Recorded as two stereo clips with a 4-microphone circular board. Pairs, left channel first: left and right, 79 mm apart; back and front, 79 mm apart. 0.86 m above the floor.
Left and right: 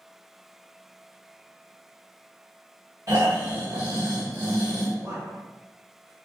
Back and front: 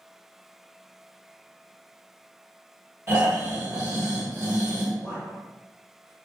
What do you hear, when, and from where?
3.1 s snoring: 55° right, 1.3 m
5.0 s a man speaking: 80° right, 1.1 m